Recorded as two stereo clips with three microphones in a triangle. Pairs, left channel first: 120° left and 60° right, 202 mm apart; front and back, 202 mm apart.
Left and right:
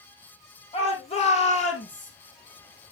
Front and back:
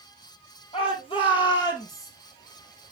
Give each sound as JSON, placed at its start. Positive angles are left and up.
{"t": 0.7, "sound": "a shout", "azimuth_deg": 60, "distance_m": 4.5}